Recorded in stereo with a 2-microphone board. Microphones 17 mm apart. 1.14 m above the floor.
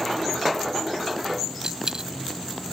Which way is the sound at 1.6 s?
45° right (ahead or behind).